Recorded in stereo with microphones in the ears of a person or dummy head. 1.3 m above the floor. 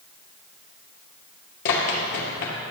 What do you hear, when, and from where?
1.6 s running footsteps: 45° left (ahead or behind), 1.8 m